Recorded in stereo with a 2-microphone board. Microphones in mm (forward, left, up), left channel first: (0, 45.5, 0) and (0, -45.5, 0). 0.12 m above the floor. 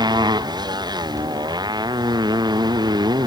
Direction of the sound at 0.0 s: 50° right (ahead or behind).